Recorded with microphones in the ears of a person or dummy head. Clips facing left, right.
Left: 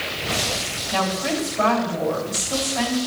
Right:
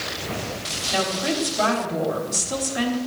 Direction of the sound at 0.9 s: 10° right (ahead or behind).